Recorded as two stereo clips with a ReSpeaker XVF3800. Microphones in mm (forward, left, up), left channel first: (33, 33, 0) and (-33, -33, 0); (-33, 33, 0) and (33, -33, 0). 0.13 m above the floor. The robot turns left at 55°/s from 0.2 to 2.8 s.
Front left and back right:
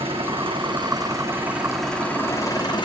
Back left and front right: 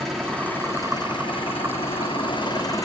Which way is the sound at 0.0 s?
135° right.